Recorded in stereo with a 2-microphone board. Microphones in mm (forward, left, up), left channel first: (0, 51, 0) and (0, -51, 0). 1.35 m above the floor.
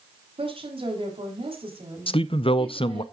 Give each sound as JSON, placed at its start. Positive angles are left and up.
{"t": 0.4, "sound": "a woman speaking", "side_deg": -65, "distance_m": 3.5}
{"t": 2.1, "sound": "a man speaking", "side_deg": 65, "distance_m": 0.6}